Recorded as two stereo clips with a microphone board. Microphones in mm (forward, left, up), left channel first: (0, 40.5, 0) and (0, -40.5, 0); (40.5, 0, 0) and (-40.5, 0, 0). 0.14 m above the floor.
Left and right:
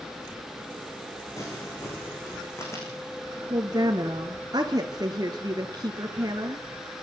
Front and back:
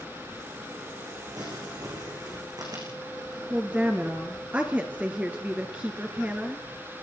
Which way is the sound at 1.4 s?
145° left.